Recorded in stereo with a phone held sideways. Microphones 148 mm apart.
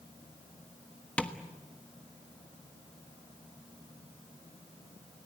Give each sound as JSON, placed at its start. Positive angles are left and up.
{"t": 1.2, "sound": "tapping", "side_deg": 10, "distance_m": 1.3}